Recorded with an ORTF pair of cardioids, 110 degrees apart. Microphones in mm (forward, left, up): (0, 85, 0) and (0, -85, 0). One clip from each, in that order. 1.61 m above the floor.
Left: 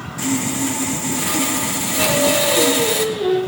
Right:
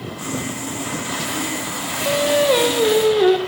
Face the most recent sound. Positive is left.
turn(degrees=-65)